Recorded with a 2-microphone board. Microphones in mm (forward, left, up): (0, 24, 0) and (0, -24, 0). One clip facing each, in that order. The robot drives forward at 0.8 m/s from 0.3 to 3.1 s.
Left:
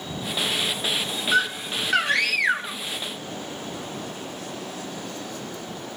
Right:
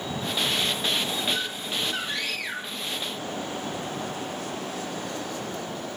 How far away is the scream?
About 1.2 m.